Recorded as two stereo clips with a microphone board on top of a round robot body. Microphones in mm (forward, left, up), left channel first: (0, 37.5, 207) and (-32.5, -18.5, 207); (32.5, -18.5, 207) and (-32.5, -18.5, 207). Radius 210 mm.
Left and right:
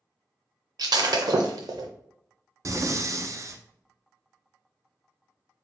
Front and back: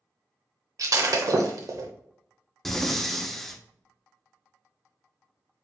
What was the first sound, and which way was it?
Breaking glass, 140° right.